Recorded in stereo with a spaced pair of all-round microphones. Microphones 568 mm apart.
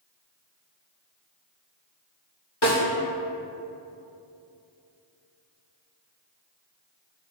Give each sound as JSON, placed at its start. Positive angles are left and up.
{"t": 2.6, "sound": "a snare drum", "side_deg": 45, "distance_m": 2.0}